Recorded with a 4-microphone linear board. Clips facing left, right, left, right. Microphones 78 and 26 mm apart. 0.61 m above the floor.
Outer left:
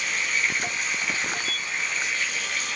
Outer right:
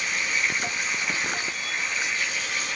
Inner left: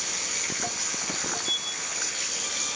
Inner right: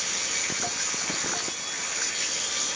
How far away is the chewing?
No chewing in this recording.